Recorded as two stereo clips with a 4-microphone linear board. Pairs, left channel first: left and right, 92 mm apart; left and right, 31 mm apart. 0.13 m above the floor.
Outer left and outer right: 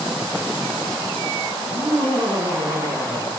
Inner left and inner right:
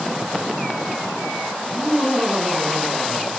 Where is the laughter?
70° right (ahead or behind), 6.5 m.